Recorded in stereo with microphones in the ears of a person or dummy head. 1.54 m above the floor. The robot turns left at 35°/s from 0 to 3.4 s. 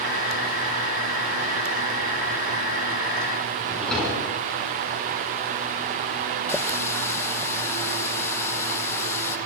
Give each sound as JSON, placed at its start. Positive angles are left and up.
{"t": 3.6, "sound": "a drawer", "side_deg": 0, "distance_m": 10.0}
{"t": 6.5, "sound": "a running tap", "side_deg": 15, "distance_m": 0.8}